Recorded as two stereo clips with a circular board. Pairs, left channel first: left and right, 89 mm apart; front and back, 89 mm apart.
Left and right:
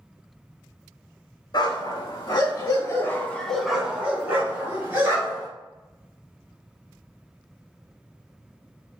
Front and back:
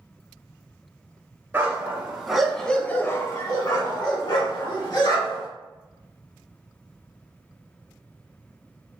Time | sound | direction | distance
1.5 | a dog barking | 110° left | 1.1 m